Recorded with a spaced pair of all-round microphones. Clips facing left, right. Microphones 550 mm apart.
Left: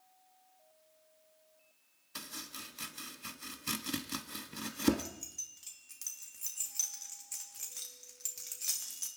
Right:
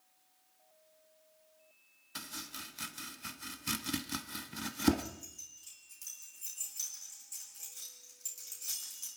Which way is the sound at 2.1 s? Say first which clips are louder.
Right 1 dB; 10° right (ahead or behind).